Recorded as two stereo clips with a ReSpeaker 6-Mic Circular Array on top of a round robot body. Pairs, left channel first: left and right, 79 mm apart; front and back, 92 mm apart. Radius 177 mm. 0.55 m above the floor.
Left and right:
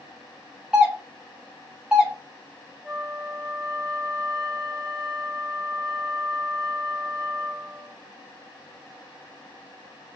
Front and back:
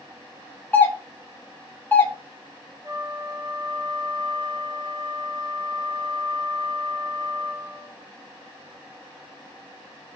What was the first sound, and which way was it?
A doorbell, 30° right.